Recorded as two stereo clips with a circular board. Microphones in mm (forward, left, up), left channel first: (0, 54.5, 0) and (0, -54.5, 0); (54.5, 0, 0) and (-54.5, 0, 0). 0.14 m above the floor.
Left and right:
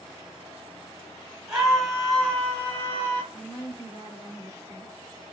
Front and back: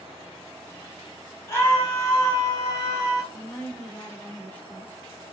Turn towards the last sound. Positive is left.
turn(degrees=-60)